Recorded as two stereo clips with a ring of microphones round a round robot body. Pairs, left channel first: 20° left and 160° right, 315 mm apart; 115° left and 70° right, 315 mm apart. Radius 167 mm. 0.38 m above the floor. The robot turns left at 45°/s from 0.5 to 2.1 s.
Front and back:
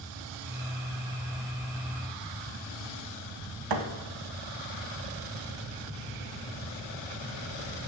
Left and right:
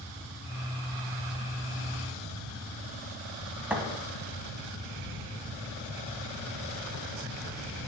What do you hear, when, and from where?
3.7 s a thud: 155° right, 1.2 m